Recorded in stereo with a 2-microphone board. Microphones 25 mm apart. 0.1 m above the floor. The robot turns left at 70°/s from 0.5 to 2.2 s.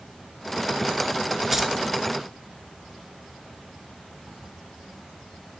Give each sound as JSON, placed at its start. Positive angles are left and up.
{"t": 1.5, "sound": "keys jangling", "side_deg": -15, "distance_m": 0.8}